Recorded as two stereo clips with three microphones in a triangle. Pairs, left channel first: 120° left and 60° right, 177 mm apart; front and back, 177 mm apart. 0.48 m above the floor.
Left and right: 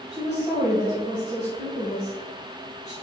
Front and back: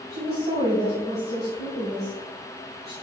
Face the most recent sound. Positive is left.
turn(degrees=165)